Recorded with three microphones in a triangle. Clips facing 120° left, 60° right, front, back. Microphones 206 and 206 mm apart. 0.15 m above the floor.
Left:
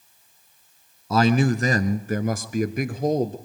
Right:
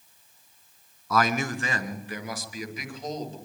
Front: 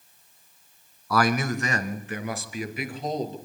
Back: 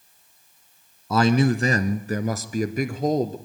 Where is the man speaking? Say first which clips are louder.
Left 7 dB, back 5 dB; 145° left, 1.3 m.